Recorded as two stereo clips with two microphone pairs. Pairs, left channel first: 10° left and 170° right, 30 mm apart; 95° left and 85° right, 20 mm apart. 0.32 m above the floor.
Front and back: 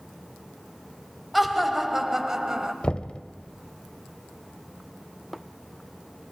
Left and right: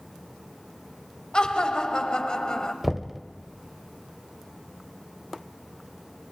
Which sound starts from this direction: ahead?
Knocking, at 2.8 s.